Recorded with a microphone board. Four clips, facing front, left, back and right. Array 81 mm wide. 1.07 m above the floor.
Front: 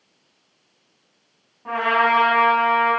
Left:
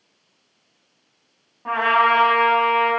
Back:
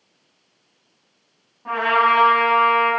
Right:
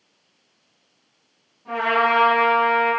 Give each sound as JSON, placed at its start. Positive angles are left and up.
{"t": 1.6, "sound": "a trumpet", "azimuth_deg": 90, "distance_m": 5.5}